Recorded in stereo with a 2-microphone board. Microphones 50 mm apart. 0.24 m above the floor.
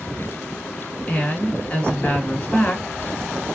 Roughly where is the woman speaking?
Left.